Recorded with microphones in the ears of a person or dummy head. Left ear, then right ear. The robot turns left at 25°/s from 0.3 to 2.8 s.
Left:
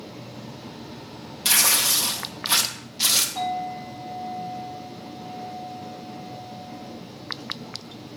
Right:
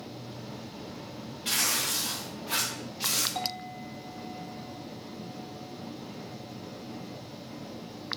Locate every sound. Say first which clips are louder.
1.4 s tearing paper: left 8 dB; 80° left, 1.2 m; by 3.2 s 45° left, 1.2 m
3.4 s a clink: left 7 dB; 65° right (ahead or behind), 2.5 m